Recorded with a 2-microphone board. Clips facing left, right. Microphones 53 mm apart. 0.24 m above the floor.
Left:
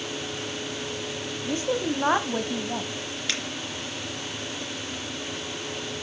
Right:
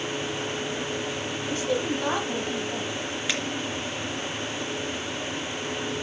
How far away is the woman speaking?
About 1.1 m.